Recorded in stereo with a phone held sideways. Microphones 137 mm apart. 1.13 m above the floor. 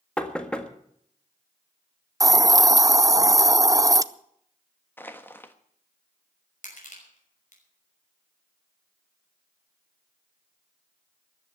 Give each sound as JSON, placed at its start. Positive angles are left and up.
{"t": 0.2, "sound": "knocking", "side_deg": 5, "distance_m": 1.6}
{"t": 2.2, "sound": "a hiss", "side_deg": -25, "distance_m": 0.6}
{"t": 5.0, "sound": "crushing", "side_deg": 15, "distance_m": 1.3}
{"t": 6.6, "sound": "crushing", "side_deg": 70, "distance_m": 5.5}